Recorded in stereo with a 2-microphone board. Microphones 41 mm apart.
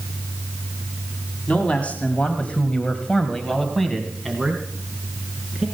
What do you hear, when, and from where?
1.5 s a man speaking: 35° left (ahead or behind), 2 m; by 5.7 s 5° right (ahead or behind), 4 m